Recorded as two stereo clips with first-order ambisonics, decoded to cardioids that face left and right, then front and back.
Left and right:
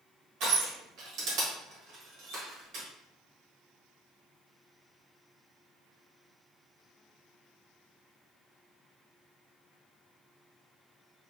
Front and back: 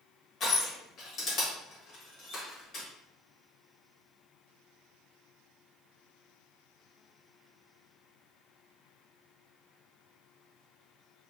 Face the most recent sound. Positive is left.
turn(degrees=-55)